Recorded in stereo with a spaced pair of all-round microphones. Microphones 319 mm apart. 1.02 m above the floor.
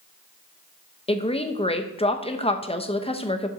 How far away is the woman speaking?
About 0.7 m.